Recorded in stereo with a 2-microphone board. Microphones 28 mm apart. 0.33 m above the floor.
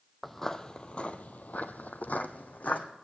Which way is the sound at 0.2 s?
Centre (ahead or behind).